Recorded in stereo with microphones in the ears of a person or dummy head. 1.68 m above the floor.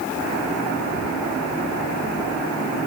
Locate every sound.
Only background noise.